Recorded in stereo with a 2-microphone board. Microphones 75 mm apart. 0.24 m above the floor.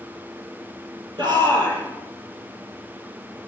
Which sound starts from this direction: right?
A shout, at 1.2 s.